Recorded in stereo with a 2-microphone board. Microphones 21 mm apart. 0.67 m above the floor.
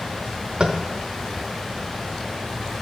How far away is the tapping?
About 0.8 m.